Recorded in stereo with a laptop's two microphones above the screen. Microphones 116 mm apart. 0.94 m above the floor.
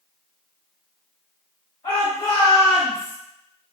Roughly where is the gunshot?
No gunshot in this recording.